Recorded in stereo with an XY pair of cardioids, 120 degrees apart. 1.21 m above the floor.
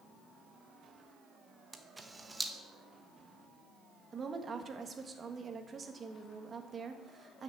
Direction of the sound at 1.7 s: 15° right.